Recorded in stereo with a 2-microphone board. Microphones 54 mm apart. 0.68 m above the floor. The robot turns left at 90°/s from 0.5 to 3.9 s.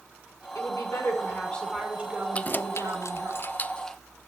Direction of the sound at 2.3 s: 25° left (ahead or behind).